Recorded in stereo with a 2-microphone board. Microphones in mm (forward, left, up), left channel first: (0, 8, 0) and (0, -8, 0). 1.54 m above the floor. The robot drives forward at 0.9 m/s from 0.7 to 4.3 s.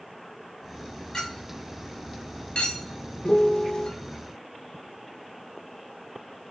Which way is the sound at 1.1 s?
45° left (ahead or behind).